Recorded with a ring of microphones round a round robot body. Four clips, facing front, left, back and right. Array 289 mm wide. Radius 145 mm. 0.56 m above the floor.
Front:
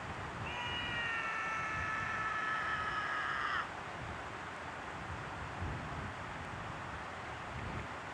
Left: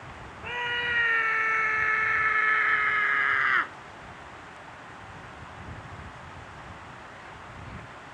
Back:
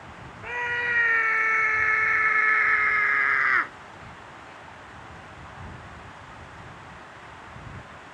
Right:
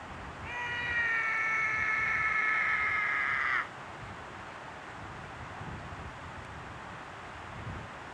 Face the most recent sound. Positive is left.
turn(degrees=145)